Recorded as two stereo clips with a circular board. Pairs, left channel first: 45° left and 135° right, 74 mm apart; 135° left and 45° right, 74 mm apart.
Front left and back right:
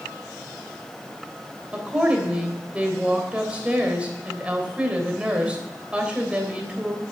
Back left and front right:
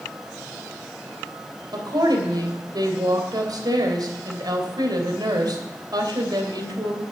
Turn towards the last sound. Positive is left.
turn(degrees=-60)